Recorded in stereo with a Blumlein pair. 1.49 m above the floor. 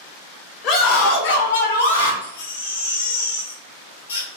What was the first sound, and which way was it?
A scream, 35° left.